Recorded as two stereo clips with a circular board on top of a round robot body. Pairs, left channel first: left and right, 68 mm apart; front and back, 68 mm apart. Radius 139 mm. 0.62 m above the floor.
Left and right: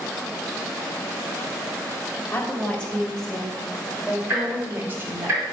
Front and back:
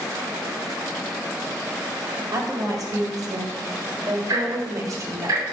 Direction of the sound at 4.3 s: 150° right.